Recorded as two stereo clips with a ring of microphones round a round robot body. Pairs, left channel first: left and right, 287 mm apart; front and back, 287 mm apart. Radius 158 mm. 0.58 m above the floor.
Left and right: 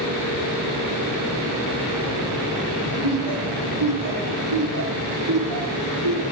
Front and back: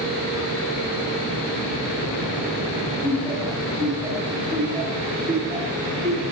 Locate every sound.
3.0 s laughter: 95° right, 4.5 m; by 6.2 s 110° right, 8 m